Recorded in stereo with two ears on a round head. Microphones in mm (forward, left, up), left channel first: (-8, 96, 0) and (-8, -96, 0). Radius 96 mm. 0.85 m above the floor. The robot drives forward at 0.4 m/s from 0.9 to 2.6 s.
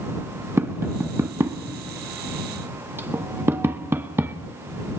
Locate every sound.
0.6 s tapping: 10° right (ahead or behind), 0.8 m